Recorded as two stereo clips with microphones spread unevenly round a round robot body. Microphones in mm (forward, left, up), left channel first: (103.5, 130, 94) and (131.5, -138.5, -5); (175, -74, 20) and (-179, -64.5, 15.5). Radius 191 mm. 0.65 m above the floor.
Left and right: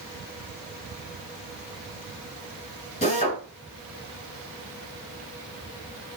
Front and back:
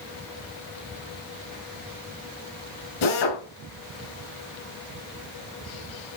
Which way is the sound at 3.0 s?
30° left.